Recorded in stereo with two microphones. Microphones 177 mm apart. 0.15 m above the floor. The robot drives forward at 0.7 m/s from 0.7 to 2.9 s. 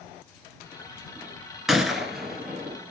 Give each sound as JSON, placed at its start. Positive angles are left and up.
{"t": 1.7, "sound": "a gunshot", "side_deg": 0, "distance_m": 0.9}